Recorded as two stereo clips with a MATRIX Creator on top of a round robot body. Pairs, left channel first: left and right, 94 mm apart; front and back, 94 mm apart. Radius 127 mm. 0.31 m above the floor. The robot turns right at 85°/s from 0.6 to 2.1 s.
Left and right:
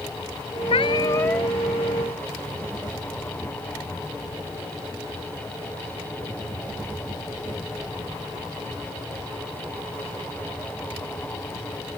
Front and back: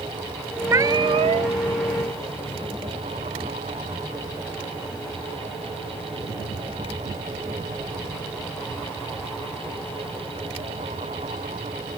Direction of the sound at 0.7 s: 115° left.